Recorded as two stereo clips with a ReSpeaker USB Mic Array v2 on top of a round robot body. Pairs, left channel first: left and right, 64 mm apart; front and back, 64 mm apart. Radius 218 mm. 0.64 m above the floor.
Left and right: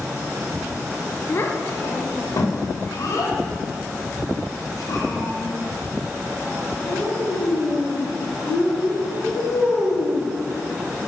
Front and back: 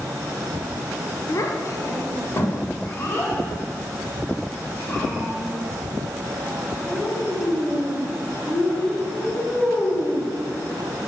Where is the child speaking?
40° left, 1.2 m; by 10.3 s 65° left, 5.5 m.